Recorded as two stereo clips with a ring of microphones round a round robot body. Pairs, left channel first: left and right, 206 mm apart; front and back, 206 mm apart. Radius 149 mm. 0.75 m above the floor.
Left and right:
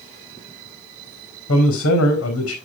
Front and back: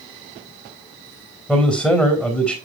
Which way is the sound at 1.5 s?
90° left.